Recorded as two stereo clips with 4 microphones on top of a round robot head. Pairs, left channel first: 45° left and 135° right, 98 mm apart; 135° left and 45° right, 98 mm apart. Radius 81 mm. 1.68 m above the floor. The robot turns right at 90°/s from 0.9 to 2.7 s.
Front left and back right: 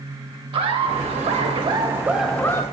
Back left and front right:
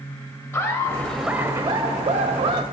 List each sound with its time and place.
0.5 s laughter: 165° right, 0.5 m; by 2.6 s 5° right, 0.5 m